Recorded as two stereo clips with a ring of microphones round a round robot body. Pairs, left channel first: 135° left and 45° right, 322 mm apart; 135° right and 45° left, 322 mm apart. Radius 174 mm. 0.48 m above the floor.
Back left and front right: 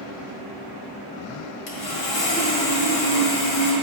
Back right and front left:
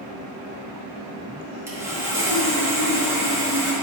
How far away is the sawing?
About 1.6 m.